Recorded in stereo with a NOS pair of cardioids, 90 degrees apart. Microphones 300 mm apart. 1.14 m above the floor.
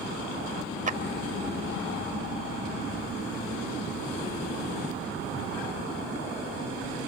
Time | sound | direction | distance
0.9 | a clap | 25° right | 1.3 m